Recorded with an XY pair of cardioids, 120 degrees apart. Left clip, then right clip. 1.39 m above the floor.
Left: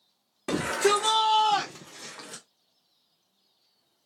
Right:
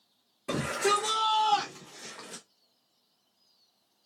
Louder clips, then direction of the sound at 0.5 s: Left 3 dB; 60° left.